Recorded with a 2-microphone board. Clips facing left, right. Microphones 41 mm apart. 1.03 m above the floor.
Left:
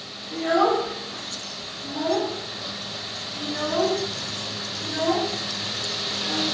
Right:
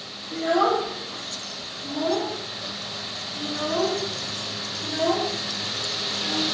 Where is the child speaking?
15° right (ahead or behind), 0.6 m.